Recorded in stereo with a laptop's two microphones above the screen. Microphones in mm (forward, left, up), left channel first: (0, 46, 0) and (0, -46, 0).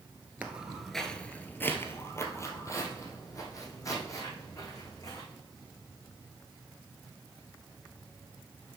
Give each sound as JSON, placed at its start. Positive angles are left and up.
{"t": 0.4, "sound": "footsteps", "side_deg": -15, "distance_m": 1.0}